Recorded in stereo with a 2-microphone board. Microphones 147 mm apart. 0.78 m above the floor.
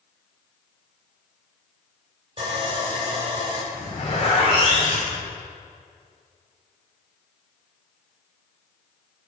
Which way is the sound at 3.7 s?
45° left (ahead or behind).